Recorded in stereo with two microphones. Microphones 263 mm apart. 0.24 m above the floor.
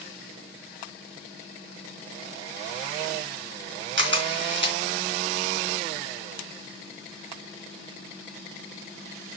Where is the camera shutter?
45° right (ahead or behind), 2.5 m.